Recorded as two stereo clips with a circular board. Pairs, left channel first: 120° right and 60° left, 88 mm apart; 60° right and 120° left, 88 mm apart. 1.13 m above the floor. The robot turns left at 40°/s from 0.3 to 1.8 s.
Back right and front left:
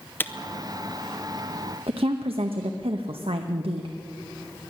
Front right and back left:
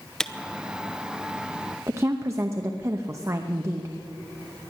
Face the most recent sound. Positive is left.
turn(degrees=60)